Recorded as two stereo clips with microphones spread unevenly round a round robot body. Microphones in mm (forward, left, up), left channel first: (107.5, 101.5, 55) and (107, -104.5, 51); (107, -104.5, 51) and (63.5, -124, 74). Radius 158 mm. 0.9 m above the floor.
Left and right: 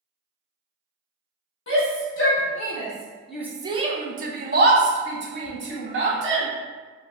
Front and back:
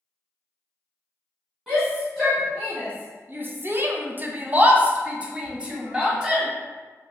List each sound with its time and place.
1.7 s a shout: 115° left, 1.0 m; by 6.5 s 75° right, 1.7 m